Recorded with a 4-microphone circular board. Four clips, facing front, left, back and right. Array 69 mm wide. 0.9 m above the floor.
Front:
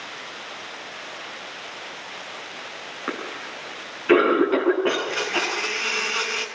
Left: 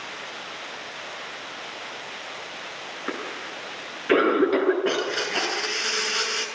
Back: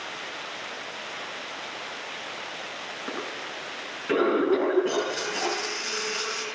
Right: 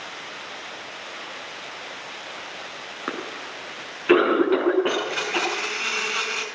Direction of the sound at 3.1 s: 50° right.